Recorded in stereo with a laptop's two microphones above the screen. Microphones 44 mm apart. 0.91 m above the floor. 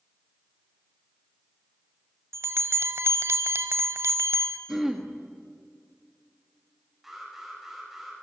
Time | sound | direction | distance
2.3 | a bell | 65° right (ahead or behind) | 1.3 m
4.7 | throat clearing | 10° right (ahead or behind) | 1.8 m
7.0 | an alarm | 5° right (ahead or behind) | 5 m